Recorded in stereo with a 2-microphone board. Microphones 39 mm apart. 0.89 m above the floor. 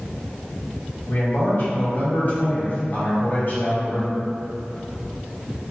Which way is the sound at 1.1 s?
45° left (ahead or behind).